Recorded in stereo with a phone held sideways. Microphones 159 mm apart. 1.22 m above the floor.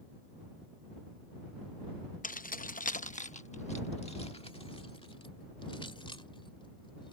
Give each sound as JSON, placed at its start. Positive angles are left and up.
{"t": 2.2, "sound": "keys jangling", "side_deg": 55}